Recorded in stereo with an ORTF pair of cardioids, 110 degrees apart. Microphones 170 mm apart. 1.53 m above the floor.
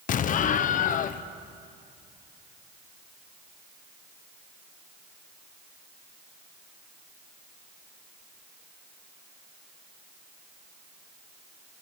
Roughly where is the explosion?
Ahead left.